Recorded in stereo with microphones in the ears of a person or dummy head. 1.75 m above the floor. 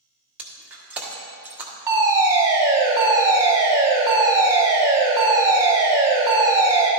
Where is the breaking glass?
5° right (ahead or behind), 1.3 m.